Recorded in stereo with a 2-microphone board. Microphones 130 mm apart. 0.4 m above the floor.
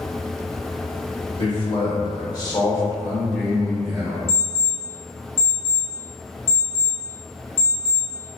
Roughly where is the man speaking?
Left.